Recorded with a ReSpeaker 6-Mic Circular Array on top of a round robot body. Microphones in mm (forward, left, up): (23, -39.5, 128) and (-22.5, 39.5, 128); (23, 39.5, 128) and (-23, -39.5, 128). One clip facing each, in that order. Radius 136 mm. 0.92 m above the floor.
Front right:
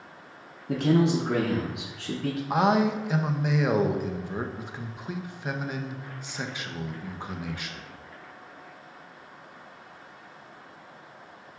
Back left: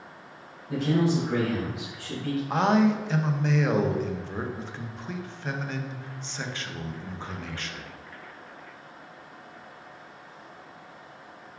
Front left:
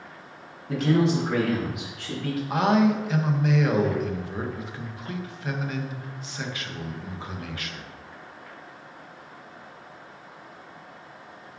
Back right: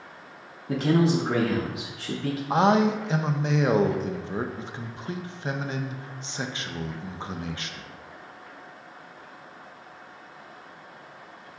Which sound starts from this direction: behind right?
A man speaking, at 2.5 s.